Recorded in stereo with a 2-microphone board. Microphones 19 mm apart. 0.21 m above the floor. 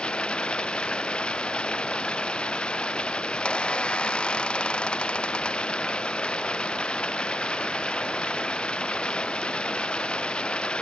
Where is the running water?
75° left (ahead or behind).